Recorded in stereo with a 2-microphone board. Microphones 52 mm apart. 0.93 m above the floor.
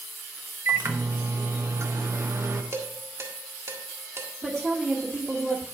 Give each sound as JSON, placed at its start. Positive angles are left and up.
{"t": 0.7, "sound": "a microwave", "side_deg": -60, "distance_m": 1.0}
{"t": 2.7, "sound": "dishes clattering", "side_deg": -55, "distance_m": 1.6}
{"t": 4.4, "sound": "a woman speaking", "side_deg": -20, "distance_m": 1.4}